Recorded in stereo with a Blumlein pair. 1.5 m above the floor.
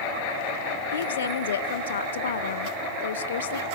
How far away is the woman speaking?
About 0.7 m.